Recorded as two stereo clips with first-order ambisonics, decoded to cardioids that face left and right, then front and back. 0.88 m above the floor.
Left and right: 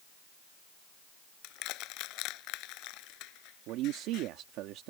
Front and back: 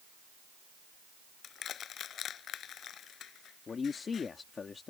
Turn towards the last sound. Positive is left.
turn(degrees=-65)